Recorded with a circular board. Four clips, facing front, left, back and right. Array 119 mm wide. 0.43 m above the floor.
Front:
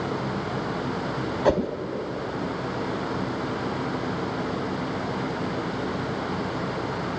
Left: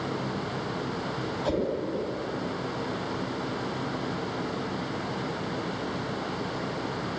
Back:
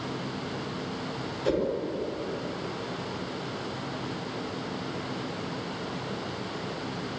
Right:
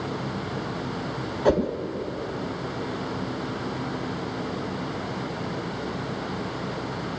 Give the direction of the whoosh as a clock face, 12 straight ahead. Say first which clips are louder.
Right 7 dB, front 4 dB; 1 o'clock.